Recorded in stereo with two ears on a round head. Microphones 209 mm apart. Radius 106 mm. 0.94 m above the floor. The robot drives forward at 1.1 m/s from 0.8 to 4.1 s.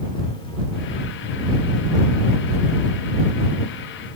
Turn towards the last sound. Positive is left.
No sound to turn to.